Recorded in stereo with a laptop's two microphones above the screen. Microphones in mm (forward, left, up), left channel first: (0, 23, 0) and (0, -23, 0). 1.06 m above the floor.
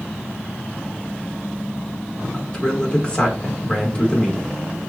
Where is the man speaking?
20° left (ahead or behind), 1.5 m.